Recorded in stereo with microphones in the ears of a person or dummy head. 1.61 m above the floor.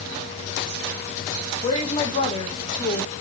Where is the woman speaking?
30° left (ahead or behind), 1.7 m.